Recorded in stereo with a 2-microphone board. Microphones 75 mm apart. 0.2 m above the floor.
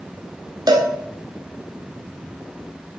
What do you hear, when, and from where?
0.7 s a cowbell: 65° right (ahead or behind), 1.1 m